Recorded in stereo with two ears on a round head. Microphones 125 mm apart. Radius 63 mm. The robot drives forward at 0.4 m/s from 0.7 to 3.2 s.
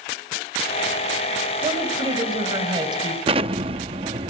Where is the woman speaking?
35° right (ahead or behind), 4 m.